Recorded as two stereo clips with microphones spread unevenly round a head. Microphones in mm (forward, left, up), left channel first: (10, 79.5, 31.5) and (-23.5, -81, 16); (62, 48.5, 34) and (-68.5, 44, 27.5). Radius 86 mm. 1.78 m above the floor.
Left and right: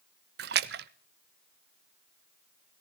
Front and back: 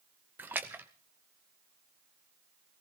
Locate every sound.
0.4 s a splash: 100° right, 0.6 m